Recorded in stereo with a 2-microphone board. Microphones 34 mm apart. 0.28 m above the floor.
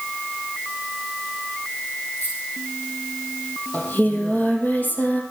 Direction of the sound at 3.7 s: 55° left (ahead or behind).